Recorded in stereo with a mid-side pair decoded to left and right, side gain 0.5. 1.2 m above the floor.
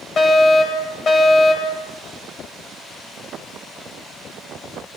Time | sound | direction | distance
0.2 | a fire alarm | 50° left | 10 m